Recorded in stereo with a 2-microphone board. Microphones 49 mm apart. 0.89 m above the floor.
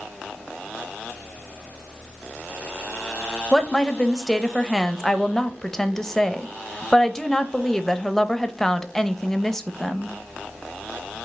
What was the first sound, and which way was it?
A woman speaking, 10° left (ahead or behind).